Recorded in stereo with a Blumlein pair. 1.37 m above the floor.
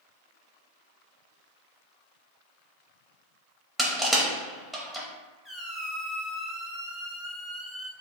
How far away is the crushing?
About 0.8 m.